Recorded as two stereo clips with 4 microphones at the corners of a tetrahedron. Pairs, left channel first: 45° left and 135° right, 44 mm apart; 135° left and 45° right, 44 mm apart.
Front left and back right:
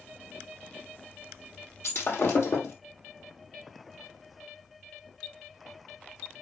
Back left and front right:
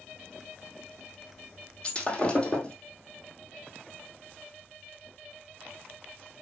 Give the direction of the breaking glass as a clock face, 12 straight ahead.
10 o'clock.